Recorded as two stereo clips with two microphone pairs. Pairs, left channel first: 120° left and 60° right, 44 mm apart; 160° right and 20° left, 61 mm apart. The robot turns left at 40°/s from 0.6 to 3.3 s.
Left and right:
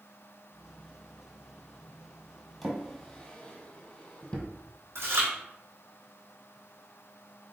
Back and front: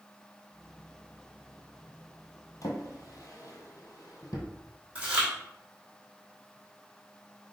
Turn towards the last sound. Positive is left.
turn(degrees=-50)